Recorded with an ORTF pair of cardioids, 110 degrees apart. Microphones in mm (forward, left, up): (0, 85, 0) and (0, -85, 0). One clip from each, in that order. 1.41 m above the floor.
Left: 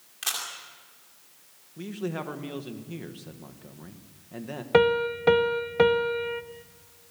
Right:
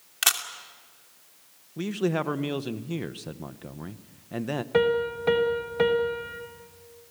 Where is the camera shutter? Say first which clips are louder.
Right 6 dB; 65° right, 2.5 m.